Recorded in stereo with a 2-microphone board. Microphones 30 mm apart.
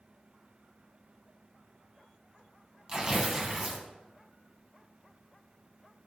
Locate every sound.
2.9 s tearing paper: 25° right (ahead or behind), 1.3 m